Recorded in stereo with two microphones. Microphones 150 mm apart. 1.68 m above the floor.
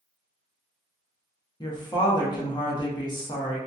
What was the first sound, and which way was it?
A woman speaking, 30° left (ahead or behind).